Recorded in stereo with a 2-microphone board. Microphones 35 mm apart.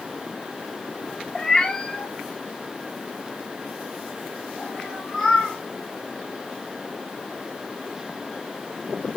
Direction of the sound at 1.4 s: 15° left (ahead or behind).